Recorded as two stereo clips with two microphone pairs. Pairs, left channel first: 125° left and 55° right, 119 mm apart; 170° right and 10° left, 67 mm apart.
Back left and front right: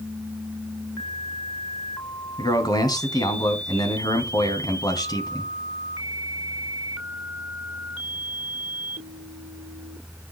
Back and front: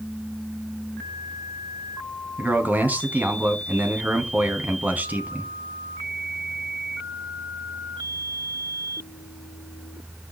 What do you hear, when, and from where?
2.4 s a man speaking: 75° left, 2.5 m